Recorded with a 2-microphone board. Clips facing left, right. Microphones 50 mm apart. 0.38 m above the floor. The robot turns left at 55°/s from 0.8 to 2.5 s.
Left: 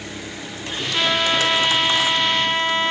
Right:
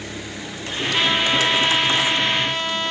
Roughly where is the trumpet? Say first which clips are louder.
Even; behind.